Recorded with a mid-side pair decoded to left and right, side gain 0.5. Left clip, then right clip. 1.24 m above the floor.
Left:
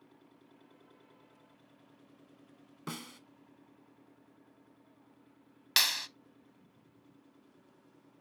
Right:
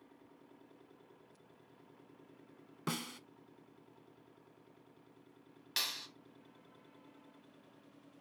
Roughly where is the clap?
Left.